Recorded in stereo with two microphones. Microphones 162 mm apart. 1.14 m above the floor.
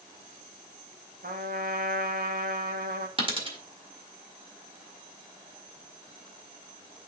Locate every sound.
1.2 s a trumpet: 65° right (ahead or behind), 1.3 m
3.2 s a dropped coin: 35° right (ahead or behind), 1.6 m